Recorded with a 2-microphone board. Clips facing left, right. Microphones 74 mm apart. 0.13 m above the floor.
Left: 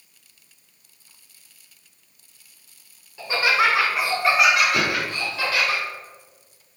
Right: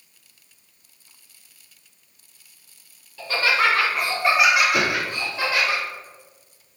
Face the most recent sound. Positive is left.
turn(degrees=-5)  # may be behind; listen again after turning